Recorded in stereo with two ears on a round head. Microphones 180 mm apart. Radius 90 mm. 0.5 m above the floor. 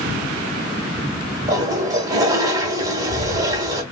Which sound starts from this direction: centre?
A toilet flushing, at 1.5 s.